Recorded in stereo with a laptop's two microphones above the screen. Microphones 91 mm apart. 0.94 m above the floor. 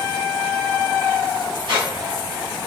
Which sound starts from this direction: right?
A squeak, at 1.7 s.